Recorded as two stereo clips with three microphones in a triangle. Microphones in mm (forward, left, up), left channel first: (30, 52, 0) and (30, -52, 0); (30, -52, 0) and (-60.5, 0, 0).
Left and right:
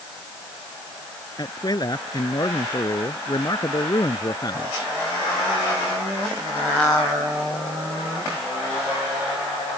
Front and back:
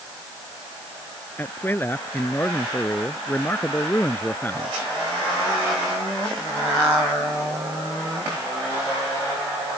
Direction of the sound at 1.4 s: 40° left.